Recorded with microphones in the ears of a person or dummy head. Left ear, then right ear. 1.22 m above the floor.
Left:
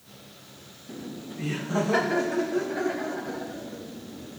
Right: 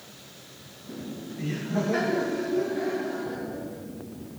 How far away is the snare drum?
No snare drum in this recording.